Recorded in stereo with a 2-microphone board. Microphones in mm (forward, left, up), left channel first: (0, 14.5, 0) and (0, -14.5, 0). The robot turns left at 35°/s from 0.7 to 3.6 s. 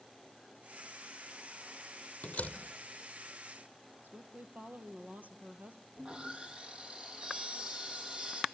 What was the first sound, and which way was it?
A door slam, 50° left (ahead or behind).